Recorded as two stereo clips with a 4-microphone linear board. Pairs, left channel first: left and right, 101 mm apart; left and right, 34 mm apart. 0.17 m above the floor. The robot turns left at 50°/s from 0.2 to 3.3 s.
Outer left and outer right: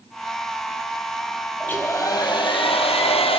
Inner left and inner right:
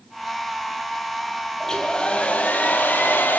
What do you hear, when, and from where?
1.6 s a hair dryer: 165° left, 5 m; by 3.4 s 80° left, 5 m